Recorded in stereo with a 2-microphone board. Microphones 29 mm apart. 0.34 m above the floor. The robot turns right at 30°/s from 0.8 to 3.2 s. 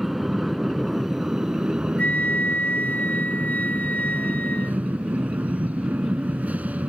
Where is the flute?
70° left; by 4.9 s 105° left.